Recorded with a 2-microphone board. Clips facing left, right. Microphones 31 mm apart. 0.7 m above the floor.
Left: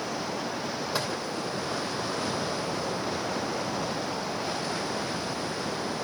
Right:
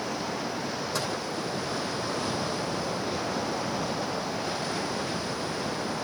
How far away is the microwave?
About 2.5 m.